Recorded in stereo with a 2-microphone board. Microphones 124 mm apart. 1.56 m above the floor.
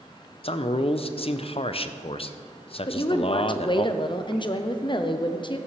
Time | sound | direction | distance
0.4 | a man speaking | 50° left (ahead or behind) | 0.5 m
2.9 | a woman speaking | 40° left (ahead or behind) | 0.7 m